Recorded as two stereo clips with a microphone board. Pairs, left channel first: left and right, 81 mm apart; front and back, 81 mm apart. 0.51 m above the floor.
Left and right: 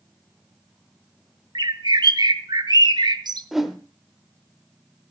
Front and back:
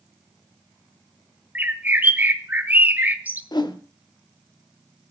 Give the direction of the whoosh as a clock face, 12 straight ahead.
12 o'clock.